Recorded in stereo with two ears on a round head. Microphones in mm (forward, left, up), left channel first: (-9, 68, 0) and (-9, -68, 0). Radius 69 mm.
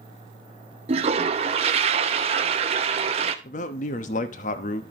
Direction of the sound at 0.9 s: 40° right (ahead or behind).